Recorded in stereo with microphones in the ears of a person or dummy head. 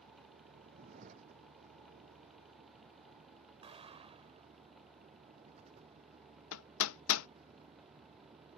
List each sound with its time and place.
0.0 s a vehicle: 35° right (ahead or behind); by 8.6 s 20° right (ahead or behind)
3.6 s an explosion: 40° right (ahead or behind)
6.5 s hammering: 70° left (ahead or behind)